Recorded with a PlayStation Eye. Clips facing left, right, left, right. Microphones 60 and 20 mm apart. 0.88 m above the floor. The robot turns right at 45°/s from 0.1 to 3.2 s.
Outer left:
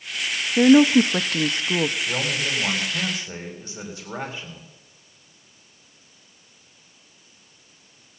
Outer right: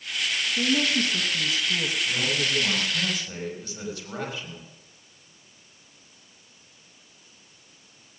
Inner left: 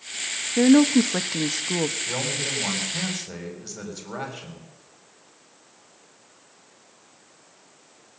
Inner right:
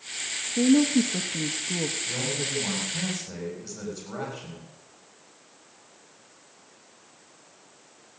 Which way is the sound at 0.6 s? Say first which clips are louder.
Outer left 13 dB, inner left 4 dB; 50° left (ahead or behind).